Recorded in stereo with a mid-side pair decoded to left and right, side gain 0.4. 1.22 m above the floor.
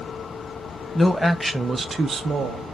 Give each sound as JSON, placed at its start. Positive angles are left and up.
{"t": 0.9, "sound": "a man speaking", "azimuth_deg": 15, "distance_m": 0.8}